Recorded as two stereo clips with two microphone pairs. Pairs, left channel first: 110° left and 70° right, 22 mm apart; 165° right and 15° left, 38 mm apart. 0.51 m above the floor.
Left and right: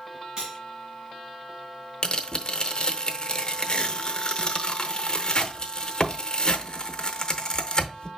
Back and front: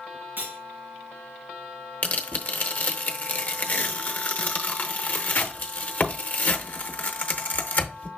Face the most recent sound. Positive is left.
turn(degrees=155)